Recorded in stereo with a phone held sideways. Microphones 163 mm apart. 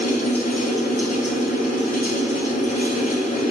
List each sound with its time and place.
0.0 s a fan: 50° left (ahead or behind), 2 m